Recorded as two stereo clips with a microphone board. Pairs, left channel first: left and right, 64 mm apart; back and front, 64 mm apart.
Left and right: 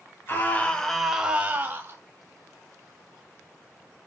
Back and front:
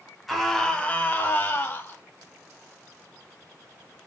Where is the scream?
90° left, 1.4 m; by 2.0 s 135° right, 2 m.